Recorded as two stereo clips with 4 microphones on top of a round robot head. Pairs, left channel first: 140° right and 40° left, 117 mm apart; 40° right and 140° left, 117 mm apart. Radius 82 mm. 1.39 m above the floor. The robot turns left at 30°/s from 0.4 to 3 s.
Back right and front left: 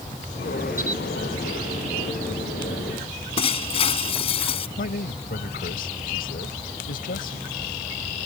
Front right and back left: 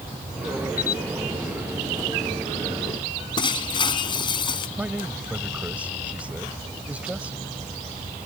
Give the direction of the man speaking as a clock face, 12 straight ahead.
5 o'clock.